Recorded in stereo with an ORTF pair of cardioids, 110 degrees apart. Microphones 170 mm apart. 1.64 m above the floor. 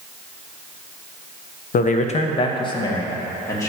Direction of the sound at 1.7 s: 60° left.